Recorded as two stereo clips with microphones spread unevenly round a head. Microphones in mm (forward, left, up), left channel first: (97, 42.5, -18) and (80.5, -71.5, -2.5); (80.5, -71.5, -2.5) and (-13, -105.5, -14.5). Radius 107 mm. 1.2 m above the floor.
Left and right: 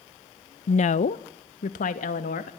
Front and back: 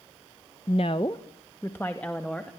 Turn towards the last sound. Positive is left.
turn(degrees=105)